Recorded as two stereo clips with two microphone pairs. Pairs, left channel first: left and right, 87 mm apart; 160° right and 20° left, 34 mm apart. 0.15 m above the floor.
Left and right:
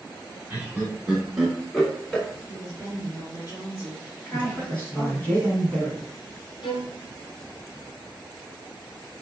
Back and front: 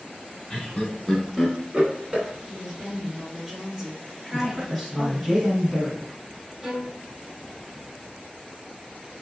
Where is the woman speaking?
95° left, 2.0 m.